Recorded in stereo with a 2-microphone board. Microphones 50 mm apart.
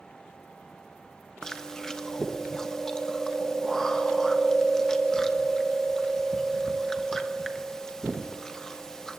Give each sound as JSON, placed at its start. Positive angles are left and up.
{"t": 1.4, "sound": "chewing", "side_deg": 10, "distance_m": 0.9}